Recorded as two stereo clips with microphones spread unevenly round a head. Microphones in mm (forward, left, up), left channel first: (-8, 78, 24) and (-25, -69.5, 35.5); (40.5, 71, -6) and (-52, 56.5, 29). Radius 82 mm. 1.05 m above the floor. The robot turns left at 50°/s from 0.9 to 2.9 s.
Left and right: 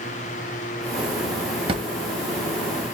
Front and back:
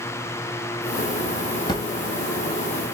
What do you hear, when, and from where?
1.7 s a drawer: 60° right, 0.5 m; by 1.9 s 70° right, 0.5 m